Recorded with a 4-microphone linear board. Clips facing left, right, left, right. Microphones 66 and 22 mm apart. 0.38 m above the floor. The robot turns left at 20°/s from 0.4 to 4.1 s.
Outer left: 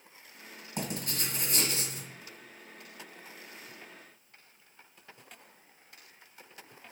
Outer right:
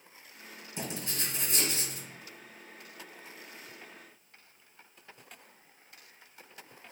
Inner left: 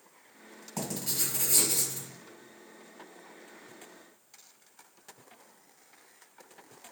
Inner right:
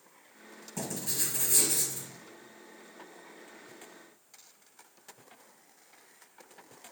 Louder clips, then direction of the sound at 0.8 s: Outer left 2 dB, inner left 1 dB; 55° left (ahead or behind).